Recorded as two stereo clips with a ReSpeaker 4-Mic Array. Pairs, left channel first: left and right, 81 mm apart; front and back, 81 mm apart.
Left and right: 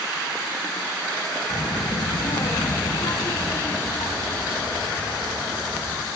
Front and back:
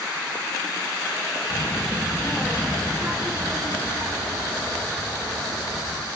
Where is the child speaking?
45° left, 0.9 m; by 6.1 s 140° left, 3 m.